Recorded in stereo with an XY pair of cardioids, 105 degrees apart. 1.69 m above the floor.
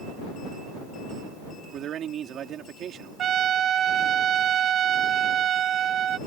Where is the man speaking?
65° right.